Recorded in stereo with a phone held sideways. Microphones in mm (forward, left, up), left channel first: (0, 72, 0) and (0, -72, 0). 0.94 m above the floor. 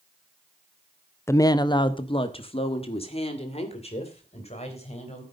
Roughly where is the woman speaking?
Centre.